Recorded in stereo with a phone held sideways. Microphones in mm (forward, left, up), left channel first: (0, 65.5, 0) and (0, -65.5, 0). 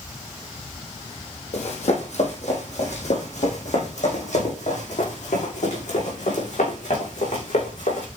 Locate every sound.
1.5 s running footsteps: 50° left (ahead or behind), 3.5 m; by 8.1 s 60° left (ahead or behind), 7.5 m